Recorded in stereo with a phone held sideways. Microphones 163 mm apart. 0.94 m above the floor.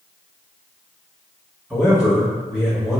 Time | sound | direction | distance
1.7 | a man speaking | 5° right (ahead or behind) | 1.4 m